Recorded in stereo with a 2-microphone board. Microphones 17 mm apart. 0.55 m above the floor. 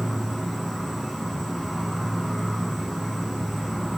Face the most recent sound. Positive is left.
turn(degrees=30)  # may be behind; listen again after turning